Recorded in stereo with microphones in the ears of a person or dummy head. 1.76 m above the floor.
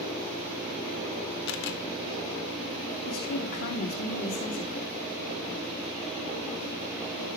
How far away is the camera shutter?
About 1.0 m.